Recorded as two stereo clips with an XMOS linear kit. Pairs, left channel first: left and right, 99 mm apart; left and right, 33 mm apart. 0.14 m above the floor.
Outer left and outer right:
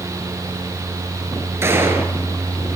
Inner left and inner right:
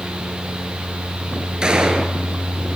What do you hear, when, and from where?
1.6 s a gunshot: 25° right (ahead or behind), 2 m